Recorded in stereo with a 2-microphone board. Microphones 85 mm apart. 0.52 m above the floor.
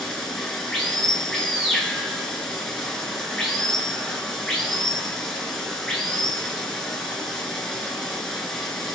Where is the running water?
5° left (ahead or behind), 1.5 m.